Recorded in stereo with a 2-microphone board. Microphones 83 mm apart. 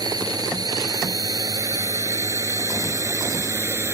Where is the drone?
55° right (ahead or behind); by 3.9 s 35° right (ahead or behind).